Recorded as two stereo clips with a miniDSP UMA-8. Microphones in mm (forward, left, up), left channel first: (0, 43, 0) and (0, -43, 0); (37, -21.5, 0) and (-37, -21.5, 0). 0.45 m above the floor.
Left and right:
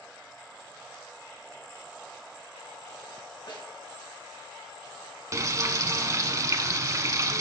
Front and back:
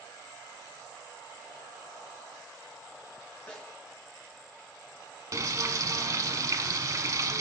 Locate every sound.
3.5 s a snare drum: 75° left, 2.5 m
5.3 s frying: 140° right, 0.6 m